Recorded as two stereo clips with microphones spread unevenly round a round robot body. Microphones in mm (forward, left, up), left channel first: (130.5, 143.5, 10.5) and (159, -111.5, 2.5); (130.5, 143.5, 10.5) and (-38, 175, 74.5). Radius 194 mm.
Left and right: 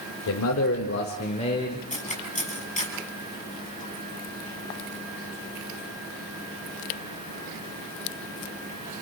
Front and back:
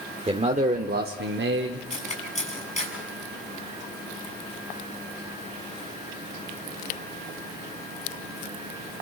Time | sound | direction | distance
0.3 | a man speaking | 100° left | 2 m
1.9 | cutlery clinking | 35° left | 7 m